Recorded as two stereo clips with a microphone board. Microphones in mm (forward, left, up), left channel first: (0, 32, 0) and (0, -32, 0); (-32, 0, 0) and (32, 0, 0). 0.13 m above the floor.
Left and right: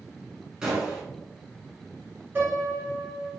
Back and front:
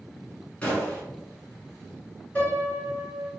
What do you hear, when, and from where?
0.6 s a gunshot: 150° right, 1.2 m
2.4 s a piano: 125° right, 2.0 m